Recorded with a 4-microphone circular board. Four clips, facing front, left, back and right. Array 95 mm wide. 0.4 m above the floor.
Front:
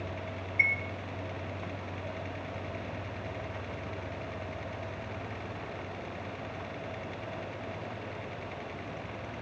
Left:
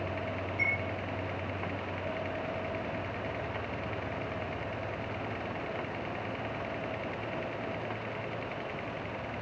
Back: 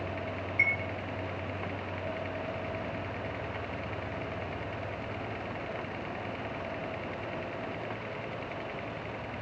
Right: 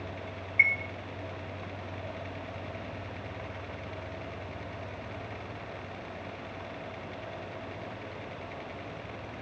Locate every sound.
0.6 s a chime: 95° right, 0.5 m